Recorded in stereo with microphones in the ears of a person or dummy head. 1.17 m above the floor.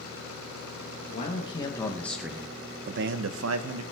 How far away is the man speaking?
About 1.3 m.